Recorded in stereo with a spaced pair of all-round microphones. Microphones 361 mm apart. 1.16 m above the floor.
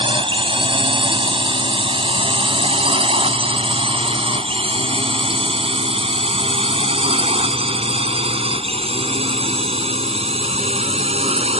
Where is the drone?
15° right (ahead or behind).